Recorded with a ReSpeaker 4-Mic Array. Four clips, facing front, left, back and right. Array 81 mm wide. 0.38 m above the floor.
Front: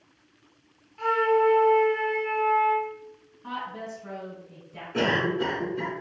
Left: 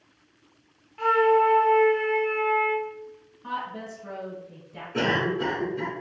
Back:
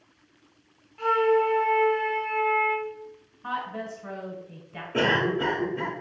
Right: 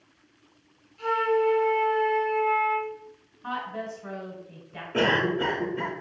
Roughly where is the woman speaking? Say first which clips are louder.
Even, back 3 dB; behind right.